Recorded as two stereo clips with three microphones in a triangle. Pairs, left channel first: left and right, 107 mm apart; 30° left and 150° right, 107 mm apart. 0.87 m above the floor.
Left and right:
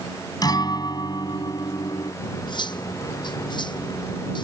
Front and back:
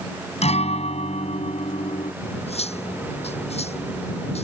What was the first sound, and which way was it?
A guitar, 40° left.